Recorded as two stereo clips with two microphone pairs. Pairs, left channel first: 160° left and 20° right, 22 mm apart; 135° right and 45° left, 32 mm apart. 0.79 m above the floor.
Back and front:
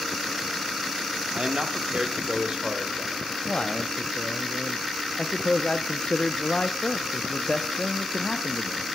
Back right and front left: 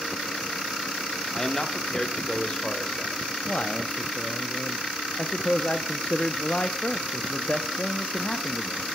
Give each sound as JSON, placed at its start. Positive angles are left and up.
{"t": 1.3, "sound": "a man speaking", "azimuth_deg": -60, "distance_m": 1.8}
{"t": 3.5, "sound": "a man speaking", "azimuth_deg": -175, "distance_m": 0.7}